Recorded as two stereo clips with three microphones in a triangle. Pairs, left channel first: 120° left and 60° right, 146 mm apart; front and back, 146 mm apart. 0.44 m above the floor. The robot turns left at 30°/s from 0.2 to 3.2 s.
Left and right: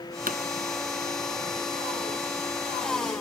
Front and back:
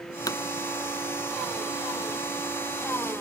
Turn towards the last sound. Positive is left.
turn(degrees=-155)